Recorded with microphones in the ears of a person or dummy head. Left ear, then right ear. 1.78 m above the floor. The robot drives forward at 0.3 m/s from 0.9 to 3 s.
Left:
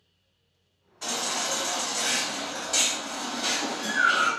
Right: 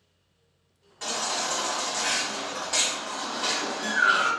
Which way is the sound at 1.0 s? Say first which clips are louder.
Even; 30° right (ahead or behind).